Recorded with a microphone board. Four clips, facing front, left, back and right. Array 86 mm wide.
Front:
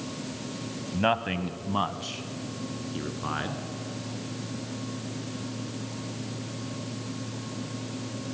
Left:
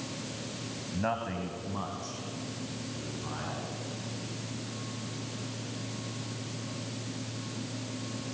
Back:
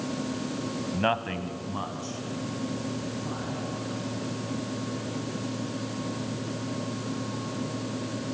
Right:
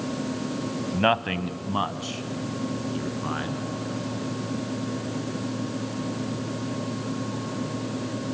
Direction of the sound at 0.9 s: 95° right.